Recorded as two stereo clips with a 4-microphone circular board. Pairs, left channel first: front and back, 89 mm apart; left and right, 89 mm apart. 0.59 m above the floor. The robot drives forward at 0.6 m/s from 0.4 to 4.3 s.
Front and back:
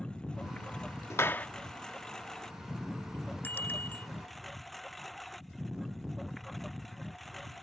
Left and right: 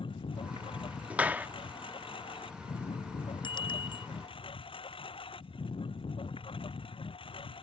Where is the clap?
30° right; by 1.5 s 50° right.